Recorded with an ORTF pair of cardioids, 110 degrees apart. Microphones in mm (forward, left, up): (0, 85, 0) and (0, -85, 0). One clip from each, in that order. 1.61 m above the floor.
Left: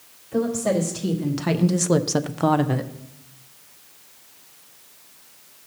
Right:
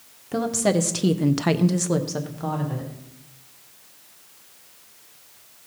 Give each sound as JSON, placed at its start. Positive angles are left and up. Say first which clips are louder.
{"t": 0.3, "sound": "a woman speaking", "louder": "even", "azimuth_deg": -60, "distance_m": 1.2}